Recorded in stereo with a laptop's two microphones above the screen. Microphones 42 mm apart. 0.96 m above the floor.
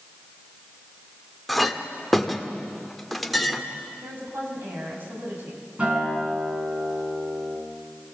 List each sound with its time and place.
1.5 s a clink: centre (ahead or behind), 1.5 m
4.0 s a woman speaking: 55° right (ahead or behind), 7 m
5.8 s a guitar: 30° right (ahead or behind), 6.5 m